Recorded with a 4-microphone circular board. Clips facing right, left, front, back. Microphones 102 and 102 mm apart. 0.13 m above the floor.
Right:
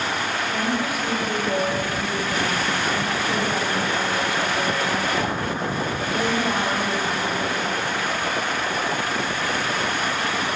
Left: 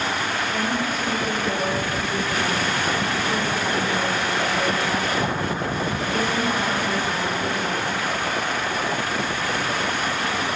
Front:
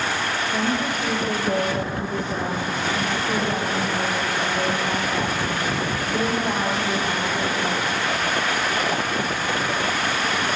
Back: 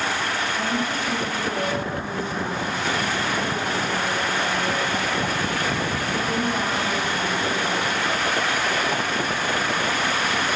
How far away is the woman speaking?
About 3.5 m.